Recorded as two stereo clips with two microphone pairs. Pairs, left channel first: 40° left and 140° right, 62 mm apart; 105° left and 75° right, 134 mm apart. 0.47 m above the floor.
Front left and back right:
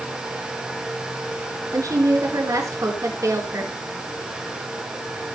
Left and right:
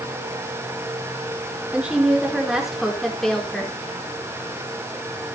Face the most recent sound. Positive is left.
turn(degrees=-170)